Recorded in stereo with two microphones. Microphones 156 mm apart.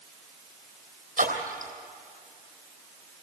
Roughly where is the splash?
Right.